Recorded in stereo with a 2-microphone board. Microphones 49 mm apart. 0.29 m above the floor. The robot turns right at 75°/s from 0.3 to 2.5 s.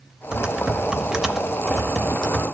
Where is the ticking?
I don't hear ticking.